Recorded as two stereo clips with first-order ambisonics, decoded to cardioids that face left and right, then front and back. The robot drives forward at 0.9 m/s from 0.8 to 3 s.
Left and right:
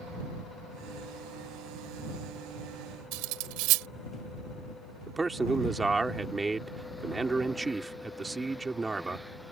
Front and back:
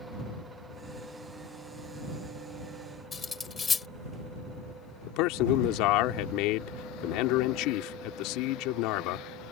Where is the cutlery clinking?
75° right.